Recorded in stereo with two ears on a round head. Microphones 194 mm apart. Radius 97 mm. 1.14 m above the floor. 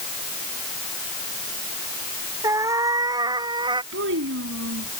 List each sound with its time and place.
2.4 s a cat meowing: 15° right (ahead or behind); by 3.8 s 20° right (ahead or behind)
3.9 s a child speaking: 60° right (ahead or behind)